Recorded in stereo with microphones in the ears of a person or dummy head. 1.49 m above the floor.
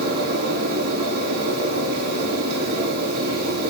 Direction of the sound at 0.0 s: 55° right (ahead or behind).